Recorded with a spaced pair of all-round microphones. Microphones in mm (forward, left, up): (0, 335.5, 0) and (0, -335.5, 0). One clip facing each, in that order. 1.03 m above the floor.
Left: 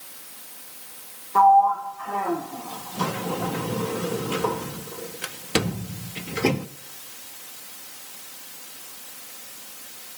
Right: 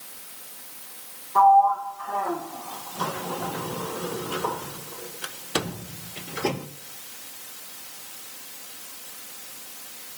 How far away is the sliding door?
About 0.6 m.